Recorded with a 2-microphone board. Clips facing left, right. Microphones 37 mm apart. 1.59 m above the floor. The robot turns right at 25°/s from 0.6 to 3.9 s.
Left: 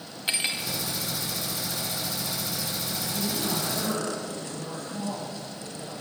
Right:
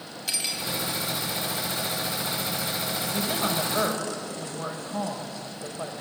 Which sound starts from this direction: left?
Cutlery clinking, at 0.3 s.